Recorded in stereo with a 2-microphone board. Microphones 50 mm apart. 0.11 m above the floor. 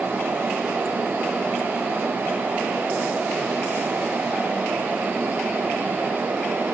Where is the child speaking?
No child speaking in this recording.